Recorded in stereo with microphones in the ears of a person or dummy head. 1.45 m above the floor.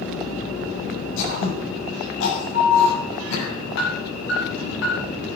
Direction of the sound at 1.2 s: 80° left.